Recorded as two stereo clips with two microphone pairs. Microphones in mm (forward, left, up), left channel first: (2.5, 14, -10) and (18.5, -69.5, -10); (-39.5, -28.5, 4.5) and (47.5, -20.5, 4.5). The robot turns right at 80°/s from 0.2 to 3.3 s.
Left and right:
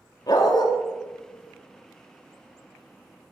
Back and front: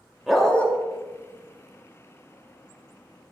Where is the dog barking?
90° left, 1.3 m; by 0.7 s 125° left, 1.3 m.